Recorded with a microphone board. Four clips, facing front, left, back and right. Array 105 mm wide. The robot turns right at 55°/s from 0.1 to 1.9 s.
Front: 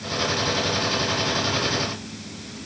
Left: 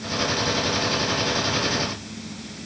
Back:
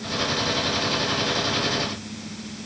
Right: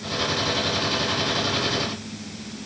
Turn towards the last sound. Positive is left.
No sound to turn to.